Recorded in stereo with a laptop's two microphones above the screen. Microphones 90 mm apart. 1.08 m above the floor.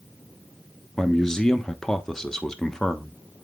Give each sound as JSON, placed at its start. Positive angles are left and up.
{"t": 1.0, "sound": "a man speaking", "side_deg": 5, "distance_m": 1.1}